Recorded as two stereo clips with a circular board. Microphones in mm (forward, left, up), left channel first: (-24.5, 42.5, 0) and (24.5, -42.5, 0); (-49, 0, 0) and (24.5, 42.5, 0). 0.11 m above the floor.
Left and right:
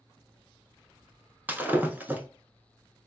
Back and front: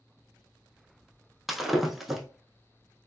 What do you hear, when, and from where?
1.5 s breaking glass: 50° right, 0.5 m